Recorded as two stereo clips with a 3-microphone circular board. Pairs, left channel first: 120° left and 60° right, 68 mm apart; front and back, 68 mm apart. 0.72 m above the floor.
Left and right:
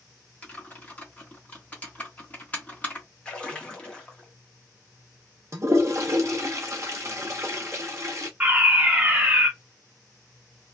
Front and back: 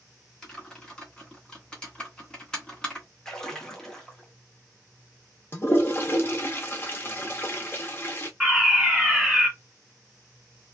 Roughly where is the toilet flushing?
Ahead right.